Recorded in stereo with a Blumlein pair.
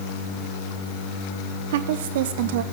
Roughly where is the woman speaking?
Ahead right.